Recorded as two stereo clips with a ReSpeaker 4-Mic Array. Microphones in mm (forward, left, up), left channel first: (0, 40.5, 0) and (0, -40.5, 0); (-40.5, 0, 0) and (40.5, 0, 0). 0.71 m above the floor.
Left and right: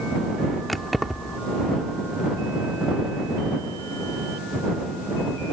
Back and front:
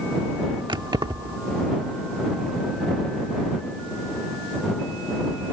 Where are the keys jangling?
Straight ahead.